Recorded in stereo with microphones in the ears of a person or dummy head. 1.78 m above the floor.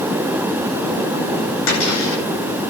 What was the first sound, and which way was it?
A cupboard door, 75° left (ahead or behind).